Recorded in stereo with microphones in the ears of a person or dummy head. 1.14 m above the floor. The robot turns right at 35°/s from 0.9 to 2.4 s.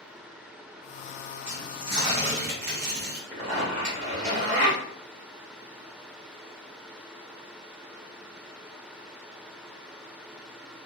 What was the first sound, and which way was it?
Tearing paper, 165° right.